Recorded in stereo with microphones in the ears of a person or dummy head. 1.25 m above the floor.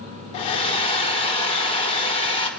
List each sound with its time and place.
0.3 s a hair dryer: 35° left (ahead or behind), 3.5 m